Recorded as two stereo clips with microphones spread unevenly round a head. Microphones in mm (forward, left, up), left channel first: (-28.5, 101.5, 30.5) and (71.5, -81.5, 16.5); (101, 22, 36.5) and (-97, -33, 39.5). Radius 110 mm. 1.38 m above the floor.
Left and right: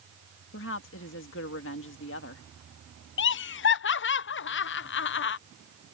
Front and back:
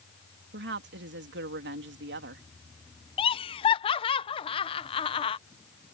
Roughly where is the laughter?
Left.